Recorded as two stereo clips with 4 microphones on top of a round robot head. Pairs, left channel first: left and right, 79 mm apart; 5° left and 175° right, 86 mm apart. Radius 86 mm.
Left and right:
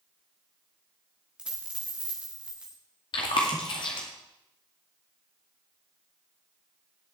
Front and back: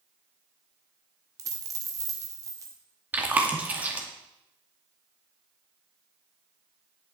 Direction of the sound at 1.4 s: 165° right.